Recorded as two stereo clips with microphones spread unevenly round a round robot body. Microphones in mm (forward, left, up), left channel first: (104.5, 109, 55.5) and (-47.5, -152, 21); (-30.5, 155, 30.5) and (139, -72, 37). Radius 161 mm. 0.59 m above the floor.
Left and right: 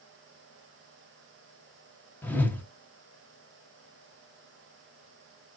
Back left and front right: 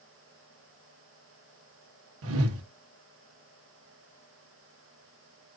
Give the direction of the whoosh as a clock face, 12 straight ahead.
1 o'clock.